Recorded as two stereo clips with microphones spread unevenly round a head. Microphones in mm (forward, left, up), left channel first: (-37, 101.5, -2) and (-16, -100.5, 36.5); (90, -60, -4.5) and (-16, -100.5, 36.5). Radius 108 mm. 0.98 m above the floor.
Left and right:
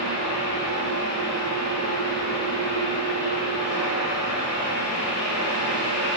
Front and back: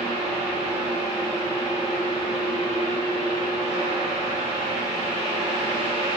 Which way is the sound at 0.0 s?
40° left.